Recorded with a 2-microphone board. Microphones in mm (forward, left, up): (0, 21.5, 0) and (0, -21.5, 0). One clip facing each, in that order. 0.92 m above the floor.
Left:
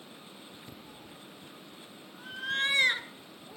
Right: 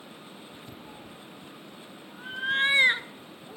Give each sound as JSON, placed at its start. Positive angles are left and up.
{"t": 0.8, "sound": "a cat meowing", "side_deg": -30, "distance_m": 0.9}